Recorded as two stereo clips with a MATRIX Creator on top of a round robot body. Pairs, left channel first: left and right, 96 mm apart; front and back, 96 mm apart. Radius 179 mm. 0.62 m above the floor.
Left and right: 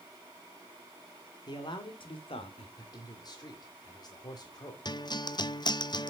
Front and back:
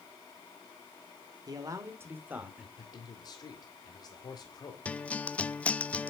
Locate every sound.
1.5 s a man speaking: 130° left, 2.5 m; by 2.7 s 100° left, 2.5 m
2.8 s a man speaking: 45° left, 2.5 m
4.8 s a guitar: 75° left, 0.8 m